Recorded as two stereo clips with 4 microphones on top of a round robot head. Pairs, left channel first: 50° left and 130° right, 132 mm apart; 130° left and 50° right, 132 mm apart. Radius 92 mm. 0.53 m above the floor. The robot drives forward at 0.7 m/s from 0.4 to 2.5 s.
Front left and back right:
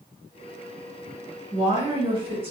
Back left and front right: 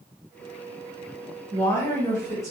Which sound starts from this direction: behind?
A woman speaking, at 1.5 s.